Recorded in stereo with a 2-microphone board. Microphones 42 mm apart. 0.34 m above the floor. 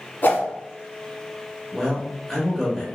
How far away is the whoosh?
About 1.0 m.